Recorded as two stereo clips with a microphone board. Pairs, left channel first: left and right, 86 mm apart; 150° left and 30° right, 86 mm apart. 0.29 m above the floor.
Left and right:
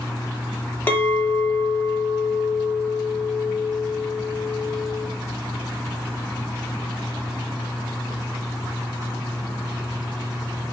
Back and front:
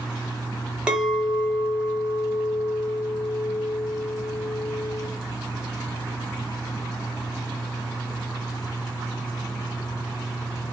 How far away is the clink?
About 0.5 m.